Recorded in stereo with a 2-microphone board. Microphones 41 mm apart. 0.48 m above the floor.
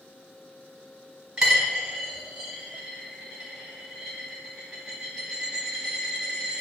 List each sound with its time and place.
1.4 s a dropped coin: 15° right (ahead or behind), 1.3 m